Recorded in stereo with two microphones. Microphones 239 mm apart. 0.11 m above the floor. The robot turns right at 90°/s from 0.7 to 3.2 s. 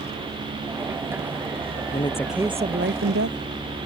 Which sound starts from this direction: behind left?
A woman speaking, at 1.9 s.